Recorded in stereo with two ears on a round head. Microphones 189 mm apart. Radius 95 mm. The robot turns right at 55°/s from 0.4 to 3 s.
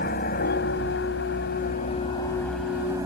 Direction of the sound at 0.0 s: 55° left.